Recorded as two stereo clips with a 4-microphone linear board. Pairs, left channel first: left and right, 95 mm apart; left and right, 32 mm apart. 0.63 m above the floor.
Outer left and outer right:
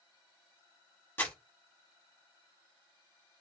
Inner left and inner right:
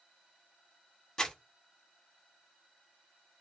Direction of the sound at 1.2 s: 20° left (ahead or behind).